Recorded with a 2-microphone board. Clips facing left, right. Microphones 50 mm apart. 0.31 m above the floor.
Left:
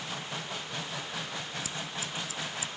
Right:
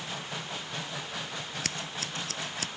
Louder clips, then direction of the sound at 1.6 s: Right 1 dB; 65° right (ahead or behind).